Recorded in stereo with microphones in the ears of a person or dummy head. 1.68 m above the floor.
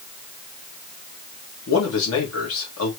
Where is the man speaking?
75° left (ahead or behind), 2.5 m.